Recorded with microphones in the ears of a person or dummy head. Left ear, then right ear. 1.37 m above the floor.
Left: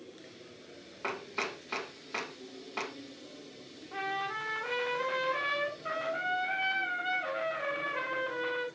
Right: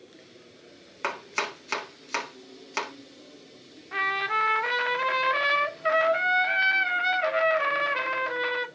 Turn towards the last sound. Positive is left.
turn(degrees=-50)  # may be behind; listen again after turning